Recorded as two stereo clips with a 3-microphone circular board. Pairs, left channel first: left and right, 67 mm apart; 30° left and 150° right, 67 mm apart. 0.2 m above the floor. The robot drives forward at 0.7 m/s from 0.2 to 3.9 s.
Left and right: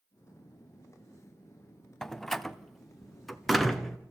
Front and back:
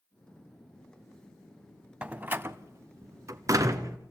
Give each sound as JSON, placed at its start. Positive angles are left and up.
{"t": 2.0, "sound": "a door slam", "azimuth_deg": 165, "distance_m": 0.7}